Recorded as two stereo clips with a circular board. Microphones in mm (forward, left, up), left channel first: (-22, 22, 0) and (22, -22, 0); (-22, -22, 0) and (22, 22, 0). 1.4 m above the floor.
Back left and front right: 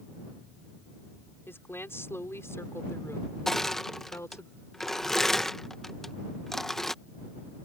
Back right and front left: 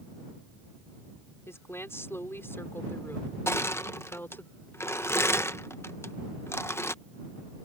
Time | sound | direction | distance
1.5 | a woman speaking | 175° right | ?
3.5 | crushing | 140° right | ?